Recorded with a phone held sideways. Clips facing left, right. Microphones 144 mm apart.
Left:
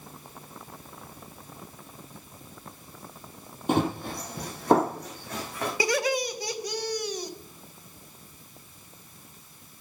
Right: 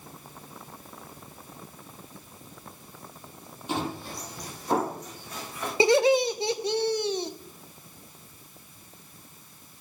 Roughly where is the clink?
I don't hear a clink.